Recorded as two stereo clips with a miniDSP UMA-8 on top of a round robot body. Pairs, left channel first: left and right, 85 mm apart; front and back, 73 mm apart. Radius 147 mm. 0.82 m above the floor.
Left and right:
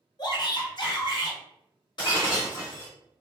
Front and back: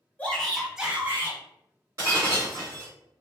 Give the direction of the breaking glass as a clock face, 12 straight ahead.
8 o'clock.